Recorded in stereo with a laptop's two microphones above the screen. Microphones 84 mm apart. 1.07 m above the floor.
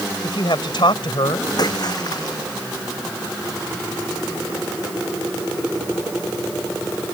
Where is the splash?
50° left (ahead or behind).